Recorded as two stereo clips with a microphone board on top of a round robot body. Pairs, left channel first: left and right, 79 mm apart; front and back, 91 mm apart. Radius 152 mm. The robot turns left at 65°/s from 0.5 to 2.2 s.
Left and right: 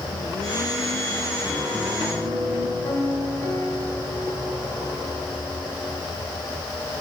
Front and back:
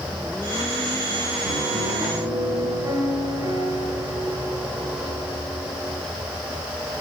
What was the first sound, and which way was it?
A piano, straight behind.